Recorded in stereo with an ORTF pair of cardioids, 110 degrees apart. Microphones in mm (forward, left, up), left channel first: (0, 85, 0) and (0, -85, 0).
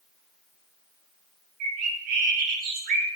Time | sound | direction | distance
1.6 | a bird | 65° right | 0.8 m